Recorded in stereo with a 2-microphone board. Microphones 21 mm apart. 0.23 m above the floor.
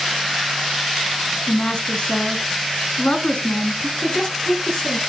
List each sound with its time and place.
1.5 s a woman speaking: 50° left (ahead or behind), 2.5 m
4.0 s a woman speaking: 45° left (ahead or behind), 5 m